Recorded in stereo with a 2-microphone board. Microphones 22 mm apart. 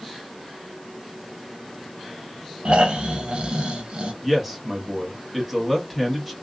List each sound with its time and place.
2.6 s snoring: 60° right (ahead or behind), 0.6 m
4.2 s a man speaking: 10° left (ahead or behind), 1.1 m